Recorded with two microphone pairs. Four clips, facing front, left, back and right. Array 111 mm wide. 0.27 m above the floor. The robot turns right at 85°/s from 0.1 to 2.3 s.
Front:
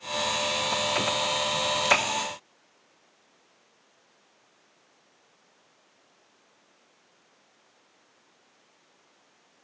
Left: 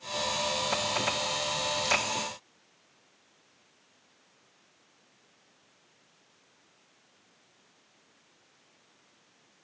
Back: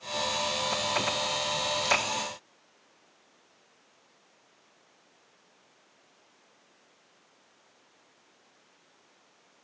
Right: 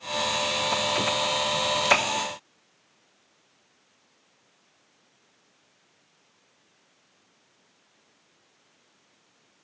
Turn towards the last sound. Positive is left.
No sound to turn to.